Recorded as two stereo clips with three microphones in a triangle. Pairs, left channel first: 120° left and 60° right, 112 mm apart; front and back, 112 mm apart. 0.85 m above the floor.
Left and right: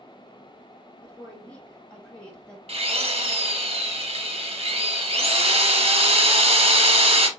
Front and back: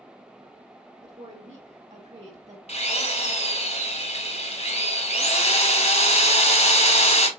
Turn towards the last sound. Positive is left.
turn(degrees=-25)